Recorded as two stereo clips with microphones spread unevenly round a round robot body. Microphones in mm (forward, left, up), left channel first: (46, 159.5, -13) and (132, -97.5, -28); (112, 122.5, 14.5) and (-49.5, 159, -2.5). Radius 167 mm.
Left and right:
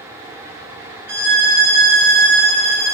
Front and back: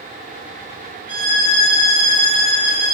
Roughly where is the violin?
Right.